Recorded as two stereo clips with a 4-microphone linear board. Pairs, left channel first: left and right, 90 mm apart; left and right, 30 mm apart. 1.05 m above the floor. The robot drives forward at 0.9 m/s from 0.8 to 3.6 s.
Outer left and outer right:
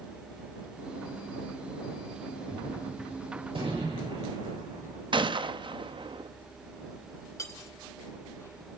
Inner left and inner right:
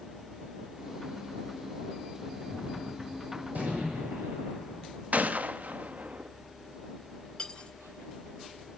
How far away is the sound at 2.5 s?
About 7.5 m.